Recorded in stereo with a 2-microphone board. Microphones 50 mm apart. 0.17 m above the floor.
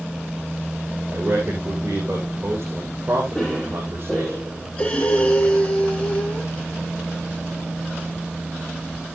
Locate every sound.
1.1 s a man speaking: 55° right (ahead or behind), 5 m
3.3 s a cough: 5° right (ahead or behind), 4 m
4.8 s breathing: 20° left (ahead or behind), 4 m